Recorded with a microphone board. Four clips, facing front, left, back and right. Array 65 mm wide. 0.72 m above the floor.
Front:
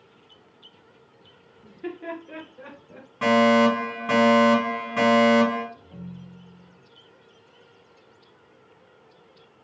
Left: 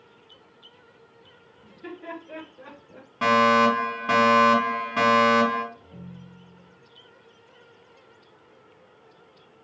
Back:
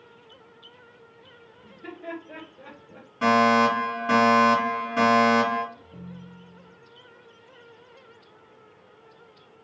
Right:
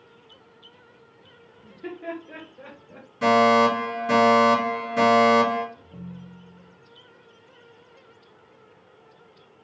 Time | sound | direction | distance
1.6 | laughter | 5° right | 1.2 m
3.2 | a fire alarm | 70° left | 1.9 m
5.7 | a ringtone | 25° left | 1.4 m